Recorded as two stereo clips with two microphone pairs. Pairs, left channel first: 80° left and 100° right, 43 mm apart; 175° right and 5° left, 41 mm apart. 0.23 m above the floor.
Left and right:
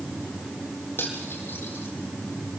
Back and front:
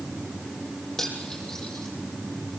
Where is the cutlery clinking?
115° left, 5 m.